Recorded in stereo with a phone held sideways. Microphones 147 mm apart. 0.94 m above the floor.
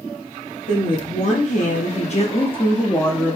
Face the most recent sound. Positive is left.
turn(degrees=5)  # may be behind; listen again after turning